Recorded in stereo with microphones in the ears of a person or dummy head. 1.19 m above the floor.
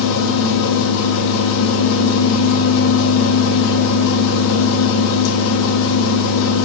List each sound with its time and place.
0.0 s a machine running: 80° left, 1.2 m